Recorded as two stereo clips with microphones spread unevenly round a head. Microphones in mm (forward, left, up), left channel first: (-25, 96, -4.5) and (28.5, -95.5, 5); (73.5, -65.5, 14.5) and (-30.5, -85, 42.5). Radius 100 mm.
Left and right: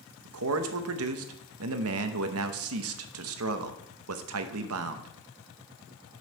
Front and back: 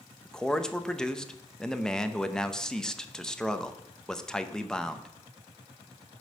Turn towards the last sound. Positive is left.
turn(degrees=-65)